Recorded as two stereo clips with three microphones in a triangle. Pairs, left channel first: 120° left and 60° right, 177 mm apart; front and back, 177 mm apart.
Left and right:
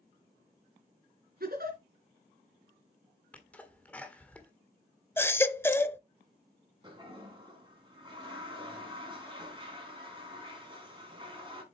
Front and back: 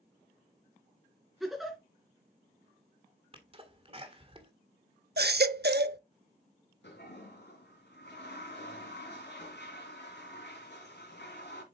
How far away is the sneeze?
About 1.6 m.